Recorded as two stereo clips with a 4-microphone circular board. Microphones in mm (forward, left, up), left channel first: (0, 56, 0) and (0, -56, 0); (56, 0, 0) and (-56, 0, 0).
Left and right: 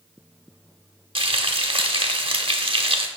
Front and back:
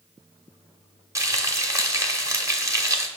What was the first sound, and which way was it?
Frying, 120° right.